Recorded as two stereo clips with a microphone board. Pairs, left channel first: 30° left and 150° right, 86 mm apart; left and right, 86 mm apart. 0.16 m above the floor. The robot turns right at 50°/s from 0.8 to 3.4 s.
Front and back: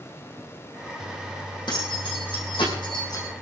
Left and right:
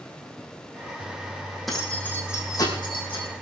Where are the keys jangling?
Straight ahead, 5.5 m; by 3.3 s 80° left, 5.5 m.